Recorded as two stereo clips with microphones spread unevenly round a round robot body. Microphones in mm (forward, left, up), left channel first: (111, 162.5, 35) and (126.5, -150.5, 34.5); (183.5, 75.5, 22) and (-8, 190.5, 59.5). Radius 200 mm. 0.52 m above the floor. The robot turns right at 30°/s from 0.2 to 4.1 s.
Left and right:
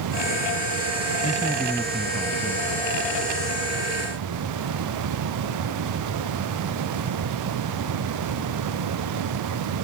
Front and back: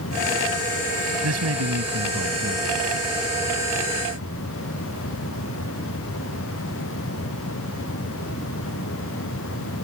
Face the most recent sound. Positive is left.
turn(degrees=-110)